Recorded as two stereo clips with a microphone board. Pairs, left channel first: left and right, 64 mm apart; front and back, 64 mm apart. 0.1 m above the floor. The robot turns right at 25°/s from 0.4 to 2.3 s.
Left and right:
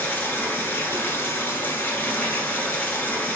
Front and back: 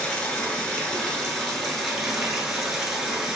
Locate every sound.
0.0 s running water: 60° left, 1.2 m; by 3.4 s 105° left, 1.2 m